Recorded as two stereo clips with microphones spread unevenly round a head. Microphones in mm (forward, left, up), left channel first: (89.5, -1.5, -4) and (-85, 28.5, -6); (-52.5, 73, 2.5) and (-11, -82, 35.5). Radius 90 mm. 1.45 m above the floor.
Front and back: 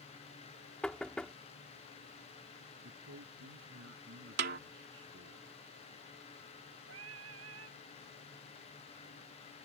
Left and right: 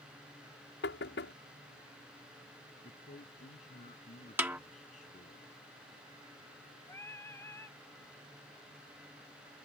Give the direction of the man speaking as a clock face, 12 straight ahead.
7 o'clock.